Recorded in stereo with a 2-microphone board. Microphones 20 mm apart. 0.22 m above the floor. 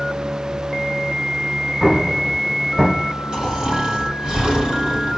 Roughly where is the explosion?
Centre.